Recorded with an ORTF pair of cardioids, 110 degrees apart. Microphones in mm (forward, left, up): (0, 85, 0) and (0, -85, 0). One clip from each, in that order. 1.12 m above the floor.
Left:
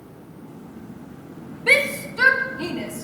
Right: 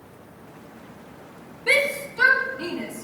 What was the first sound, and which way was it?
A shout, 15° left.